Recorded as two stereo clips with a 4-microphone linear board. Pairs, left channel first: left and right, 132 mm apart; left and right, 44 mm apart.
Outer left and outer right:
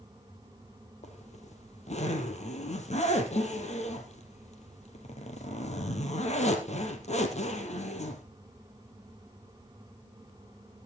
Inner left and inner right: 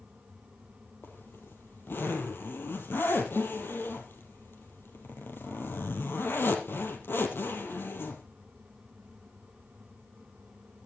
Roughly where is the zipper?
Left.